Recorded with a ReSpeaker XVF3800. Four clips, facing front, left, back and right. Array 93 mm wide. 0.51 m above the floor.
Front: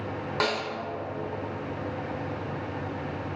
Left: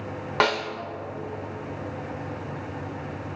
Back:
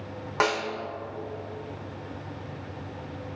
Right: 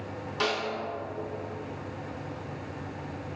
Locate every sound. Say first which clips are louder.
0.4 s a snare drum: left 6 dB, back 3 dB; 110° left, 0.8 m